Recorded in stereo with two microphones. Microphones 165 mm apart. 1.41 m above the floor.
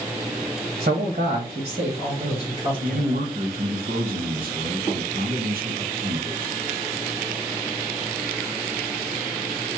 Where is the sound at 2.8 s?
60° right (ahead or behind), 1.1 m.